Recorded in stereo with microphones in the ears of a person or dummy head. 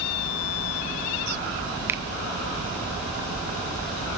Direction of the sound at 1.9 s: 20° right (ahead or behind).